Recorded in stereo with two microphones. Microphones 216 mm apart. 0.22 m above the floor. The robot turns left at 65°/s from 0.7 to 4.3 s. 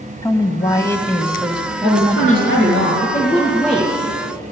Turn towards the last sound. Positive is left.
turn(degrees=-35)